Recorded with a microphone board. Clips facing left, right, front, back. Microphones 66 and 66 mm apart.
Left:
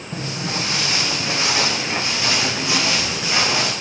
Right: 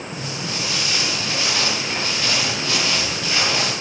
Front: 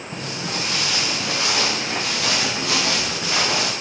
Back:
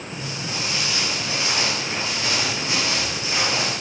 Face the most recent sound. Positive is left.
turn(degrees=10)